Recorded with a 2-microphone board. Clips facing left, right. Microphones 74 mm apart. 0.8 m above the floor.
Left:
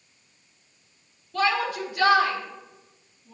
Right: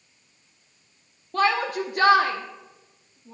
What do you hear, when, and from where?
1.3 s a shout: 50° right (ahead or behind), 1.0 m